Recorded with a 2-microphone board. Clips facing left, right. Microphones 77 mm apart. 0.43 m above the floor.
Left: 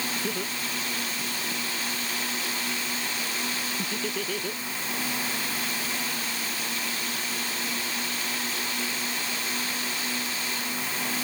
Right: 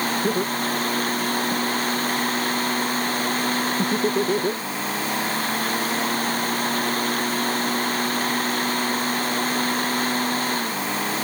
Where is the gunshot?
I don't hear a gunshot.